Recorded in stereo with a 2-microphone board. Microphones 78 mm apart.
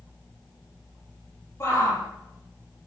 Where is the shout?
35° left (ahead or behind), 9 m.